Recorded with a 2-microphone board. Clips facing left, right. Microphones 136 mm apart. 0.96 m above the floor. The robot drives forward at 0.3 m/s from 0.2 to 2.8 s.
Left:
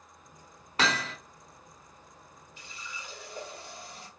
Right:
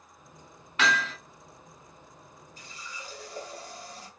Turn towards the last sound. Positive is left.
turn(degrees=-35)  # may be behind; listen again after turning